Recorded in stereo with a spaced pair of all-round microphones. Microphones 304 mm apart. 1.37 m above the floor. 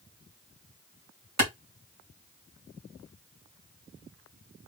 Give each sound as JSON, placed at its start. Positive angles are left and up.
{"t": 1.4, "sound": "a clap", "side_deg": -60, "distance_m": 1.8}